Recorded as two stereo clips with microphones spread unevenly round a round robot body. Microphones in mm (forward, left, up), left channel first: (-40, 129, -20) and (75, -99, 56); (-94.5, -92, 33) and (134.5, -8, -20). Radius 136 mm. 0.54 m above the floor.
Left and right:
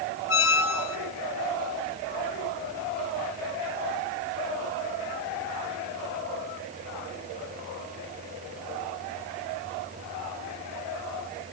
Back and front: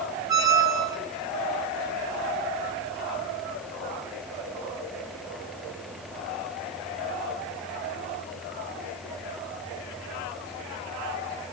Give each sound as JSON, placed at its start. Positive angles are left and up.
{"t": 0.3, "sound": "a squeak", "azimuth_deg": 95, "distance_m": 1.5}